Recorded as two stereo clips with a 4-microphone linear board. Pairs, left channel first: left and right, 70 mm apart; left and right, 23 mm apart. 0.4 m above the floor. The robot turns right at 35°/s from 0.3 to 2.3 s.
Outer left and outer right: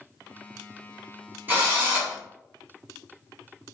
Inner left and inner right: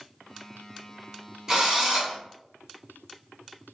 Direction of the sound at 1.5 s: 25° right (ahead or behind).